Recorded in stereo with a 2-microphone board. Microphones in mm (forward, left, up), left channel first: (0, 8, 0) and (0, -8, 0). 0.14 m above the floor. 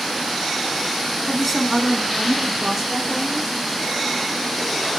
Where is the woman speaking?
20° left (ahead or behind), 1.1 m; by 3.6 s 5° right (ahead or behind), 3 m.